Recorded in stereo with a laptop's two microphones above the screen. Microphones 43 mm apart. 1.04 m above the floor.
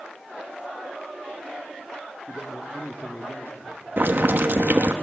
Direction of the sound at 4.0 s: 50° right (ahead or behind).